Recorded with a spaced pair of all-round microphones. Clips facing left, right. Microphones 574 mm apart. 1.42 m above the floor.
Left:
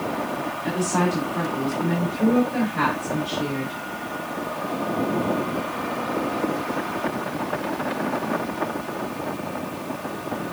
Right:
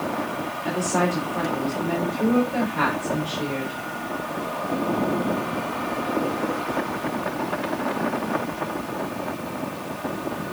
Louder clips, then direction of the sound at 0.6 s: Even; 45° left (ahead or behind).